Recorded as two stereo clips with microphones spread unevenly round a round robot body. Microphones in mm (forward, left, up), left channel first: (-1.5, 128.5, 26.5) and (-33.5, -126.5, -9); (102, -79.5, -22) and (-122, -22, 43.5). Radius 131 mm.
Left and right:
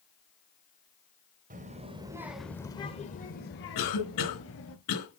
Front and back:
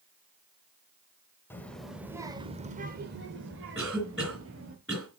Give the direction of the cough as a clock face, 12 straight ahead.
10 o'clock.